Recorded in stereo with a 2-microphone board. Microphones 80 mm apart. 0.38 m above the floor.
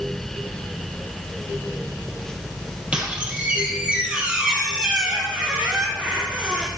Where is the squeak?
15° right (ahead or behind), 1.5 m.